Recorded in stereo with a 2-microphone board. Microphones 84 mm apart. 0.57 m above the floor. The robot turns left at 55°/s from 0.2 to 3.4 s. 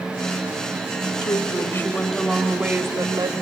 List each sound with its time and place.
1.2 s a woman speaking: 55° left, 2.5 m; by 3.3 s 60° right, 2.5 m